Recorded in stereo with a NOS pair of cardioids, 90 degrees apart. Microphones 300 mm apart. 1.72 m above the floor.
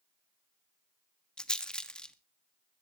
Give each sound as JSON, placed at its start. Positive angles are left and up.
{"t": 1.4, "sound": "a rattle", "azimuth_deg": 5, "distance_m": 1.2}